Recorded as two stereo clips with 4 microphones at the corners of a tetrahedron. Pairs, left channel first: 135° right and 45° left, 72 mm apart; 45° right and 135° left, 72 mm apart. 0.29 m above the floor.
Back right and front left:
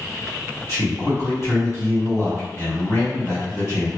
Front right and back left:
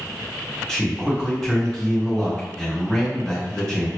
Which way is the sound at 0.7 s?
125° right.